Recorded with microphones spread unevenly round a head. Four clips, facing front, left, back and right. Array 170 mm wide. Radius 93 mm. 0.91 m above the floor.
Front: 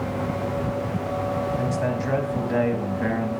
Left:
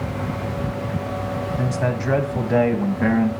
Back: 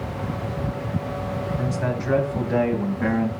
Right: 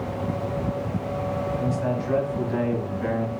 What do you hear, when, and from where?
1.6 s a man speaking: 80° left, 6 m; by 3.3 s 90° left, 6 m